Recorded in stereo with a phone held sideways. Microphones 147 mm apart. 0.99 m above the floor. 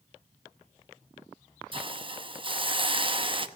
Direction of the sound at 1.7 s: 35° right (ahead or behind).